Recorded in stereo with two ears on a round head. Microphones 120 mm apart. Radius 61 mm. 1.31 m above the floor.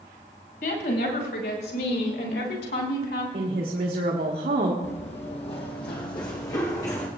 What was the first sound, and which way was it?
A woman speaking, 75° left (ahead or behind).